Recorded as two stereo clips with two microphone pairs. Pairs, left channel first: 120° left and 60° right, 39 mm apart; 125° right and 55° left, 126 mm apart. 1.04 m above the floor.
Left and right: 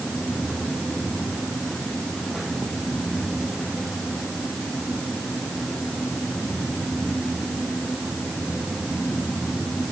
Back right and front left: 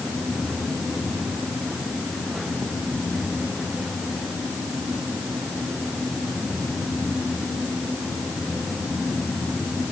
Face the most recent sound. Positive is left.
No sound to turn to.